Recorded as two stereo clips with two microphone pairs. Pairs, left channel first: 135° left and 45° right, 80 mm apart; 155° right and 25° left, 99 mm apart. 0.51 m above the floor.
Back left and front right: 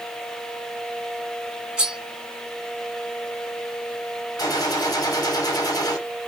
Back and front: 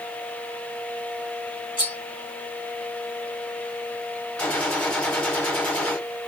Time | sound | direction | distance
1.8 | cutlery clinking | 120° right | 1.6 m
4.4 | a gunshot | 130° left | 1.6 m